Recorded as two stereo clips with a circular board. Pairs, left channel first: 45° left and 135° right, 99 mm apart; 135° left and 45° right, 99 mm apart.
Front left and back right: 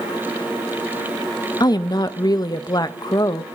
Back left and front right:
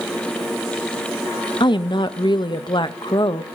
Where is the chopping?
I don't hear chopping.